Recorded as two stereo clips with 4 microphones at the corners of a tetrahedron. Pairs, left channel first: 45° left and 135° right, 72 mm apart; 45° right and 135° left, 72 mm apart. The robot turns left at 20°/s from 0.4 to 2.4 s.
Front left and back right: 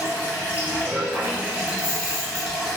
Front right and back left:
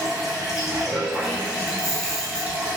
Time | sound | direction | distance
0.0 | running water | 155° right | 1.1 m
1.7 | a camera shutter | 35° left | 1.0 m